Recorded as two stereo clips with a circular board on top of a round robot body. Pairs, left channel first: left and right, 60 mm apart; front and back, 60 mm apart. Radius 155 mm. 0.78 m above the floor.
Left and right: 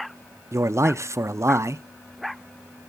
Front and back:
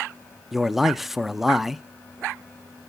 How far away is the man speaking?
About 0.5 m.